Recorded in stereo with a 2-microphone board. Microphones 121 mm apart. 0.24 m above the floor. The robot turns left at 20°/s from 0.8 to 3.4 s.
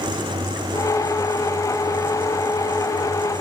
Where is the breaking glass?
I don't hear breaking glass.